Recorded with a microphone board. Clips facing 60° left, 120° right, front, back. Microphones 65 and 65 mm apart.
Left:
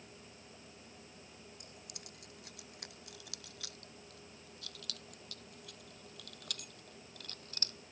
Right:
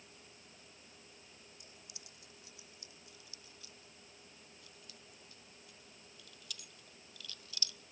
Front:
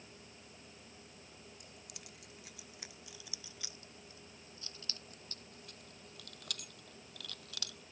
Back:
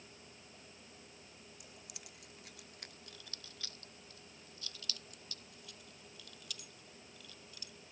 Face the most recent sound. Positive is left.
turn(degrees=10)